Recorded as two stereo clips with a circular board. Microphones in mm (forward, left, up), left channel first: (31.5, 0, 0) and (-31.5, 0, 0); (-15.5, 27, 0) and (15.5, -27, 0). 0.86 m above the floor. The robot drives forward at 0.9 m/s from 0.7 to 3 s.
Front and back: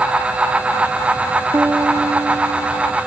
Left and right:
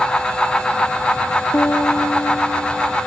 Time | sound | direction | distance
1.5 | a piano | 125° left | ?